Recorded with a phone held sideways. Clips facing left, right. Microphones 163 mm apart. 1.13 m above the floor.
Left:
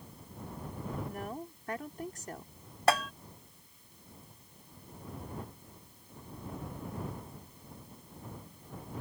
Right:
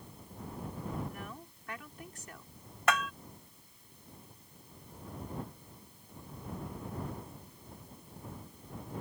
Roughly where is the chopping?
No chopping in this recording.